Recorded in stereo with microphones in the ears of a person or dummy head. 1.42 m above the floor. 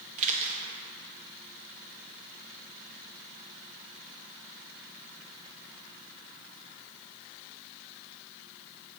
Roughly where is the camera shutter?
Right.